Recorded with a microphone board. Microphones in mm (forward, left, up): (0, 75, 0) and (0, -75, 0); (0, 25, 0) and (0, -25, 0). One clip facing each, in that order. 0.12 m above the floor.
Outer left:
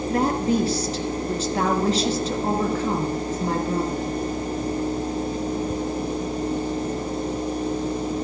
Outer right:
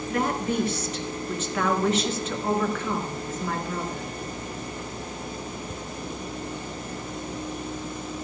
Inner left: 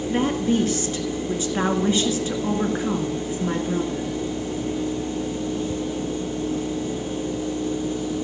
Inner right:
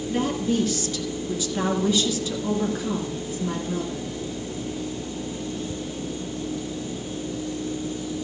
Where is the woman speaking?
35° left (ahead or behind), 2.0 m.